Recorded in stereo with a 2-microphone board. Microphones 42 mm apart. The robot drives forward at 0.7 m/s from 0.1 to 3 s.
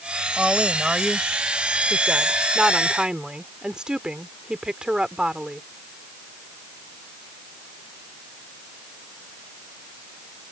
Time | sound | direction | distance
0.4 | a woman speaking | 10° right (ahead or behind) | ?